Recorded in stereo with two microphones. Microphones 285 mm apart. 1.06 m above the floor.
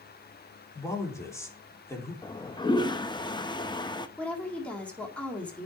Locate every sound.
0.8 s a woman speaking: 10° left (ahead or behind), 3.5 m
2.2 s a toilet flushing: 15° left (ahead or behind), 0.6 m
4.2 s a woman speaking: 5° left (ahead or behind), 2 m